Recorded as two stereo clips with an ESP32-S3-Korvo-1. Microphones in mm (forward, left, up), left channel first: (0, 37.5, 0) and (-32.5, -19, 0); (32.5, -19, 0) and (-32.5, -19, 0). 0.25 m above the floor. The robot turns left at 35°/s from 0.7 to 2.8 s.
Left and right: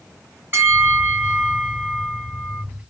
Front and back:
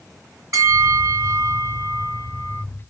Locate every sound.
0.5 s a bell: 170° right, 1.8 m; by 2.6 s 125° left, 1.8 m